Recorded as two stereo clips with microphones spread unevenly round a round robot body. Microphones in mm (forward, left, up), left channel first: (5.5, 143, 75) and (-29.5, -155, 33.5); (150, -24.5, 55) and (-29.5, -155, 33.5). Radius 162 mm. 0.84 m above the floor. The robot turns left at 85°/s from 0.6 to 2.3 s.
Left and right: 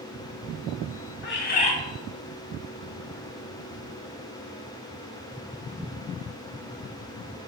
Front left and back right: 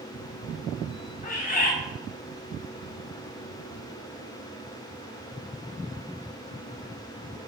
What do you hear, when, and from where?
1.2 s a bird: 60° left, 0.8 m; by 1.8 s 15° left, 0.8 m